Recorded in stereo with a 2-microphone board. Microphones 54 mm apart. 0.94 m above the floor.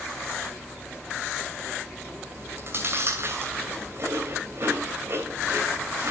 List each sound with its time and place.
2.4 s chewing: 50° right (ahead or behind), 3 m